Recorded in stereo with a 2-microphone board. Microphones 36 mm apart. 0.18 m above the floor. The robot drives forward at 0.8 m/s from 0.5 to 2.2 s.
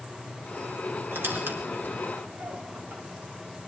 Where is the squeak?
80° right, 7 m; by 3.0 s 75° right (ahead or behind), 7.5 m.